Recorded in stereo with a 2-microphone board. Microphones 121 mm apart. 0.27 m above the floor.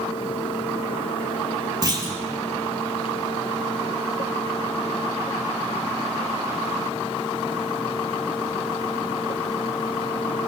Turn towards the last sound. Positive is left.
turn(degrees=-35)  # may be behind; listen again after turning